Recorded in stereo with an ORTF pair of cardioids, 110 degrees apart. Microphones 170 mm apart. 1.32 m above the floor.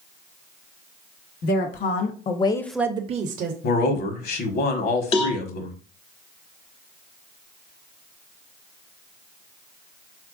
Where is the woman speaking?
65° left, 1.3 m; by 3.5 s 65° right, 0.9 m.